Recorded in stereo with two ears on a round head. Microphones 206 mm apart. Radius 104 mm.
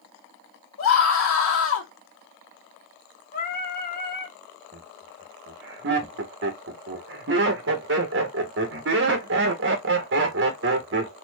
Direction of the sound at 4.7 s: 55° right (ahead or behind).